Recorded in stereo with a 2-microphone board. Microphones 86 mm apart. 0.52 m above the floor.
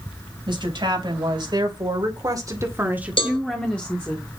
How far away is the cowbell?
About 1.5 m.